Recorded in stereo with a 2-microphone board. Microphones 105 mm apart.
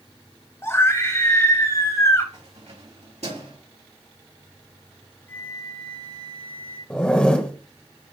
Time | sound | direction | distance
0.6 | a scream | 25° left (ahead or behind) | 2.5 m
2.3 | keys jangling | 80° right | 4 m
5.3 | a flute | 20° left (ahead or behind) | 2 m
6.9 | a zipper | 10° left (ahead or behind) | 1.1 m